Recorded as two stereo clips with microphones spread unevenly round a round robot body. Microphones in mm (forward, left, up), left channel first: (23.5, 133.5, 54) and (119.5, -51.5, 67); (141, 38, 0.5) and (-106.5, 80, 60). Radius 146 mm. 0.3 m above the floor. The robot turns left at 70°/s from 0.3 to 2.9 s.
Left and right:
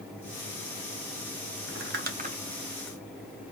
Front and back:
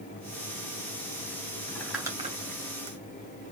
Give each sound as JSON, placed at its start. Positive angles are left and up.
{"t": 1.7, "sound": "crumpling", "azimuth_deg": -75, "distance_m": 2.0}